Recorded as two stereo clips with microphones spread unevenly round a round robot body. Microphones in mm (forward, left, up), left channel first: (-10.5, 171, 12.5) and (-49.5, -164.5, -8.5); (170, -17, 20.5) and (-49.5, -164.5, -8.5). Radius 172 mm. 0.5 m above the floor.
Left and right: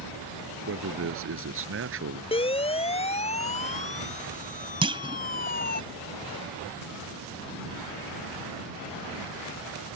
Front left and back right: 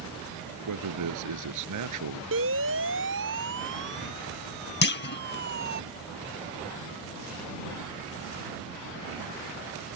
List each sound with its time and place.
0.7 s a man speaking: 150° right
2.3 s a siren: 160° left; by 5.8 s 150° left
4.8 s a clunk: 20° right